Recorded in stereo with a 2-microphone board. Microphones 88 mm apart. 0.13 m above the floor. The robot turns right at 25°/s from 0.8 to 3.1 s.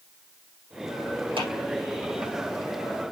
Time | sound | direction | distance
1.4 | a clap | 70° right (ahead or behind) | 4 m